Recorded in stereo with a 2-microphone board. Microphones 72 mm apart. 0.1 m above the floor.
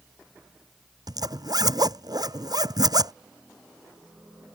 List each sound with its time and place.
1.1 s a zipper: 55° right (ahead or behind)